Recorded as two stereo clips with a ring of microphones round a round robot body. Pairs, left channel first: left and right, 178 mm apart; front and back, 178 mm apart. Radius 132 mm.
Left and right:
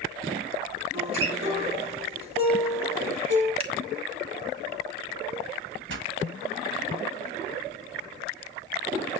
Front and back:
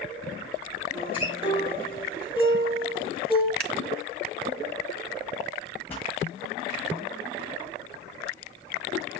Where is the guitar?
95° right, 6.5 m.